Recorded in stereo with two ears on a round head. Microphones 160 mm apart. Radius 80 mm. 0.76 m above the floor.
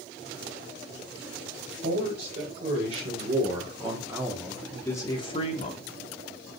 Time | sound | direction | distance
1.8 | a man speaking | 55° right (ahead or behind) | 3.5 m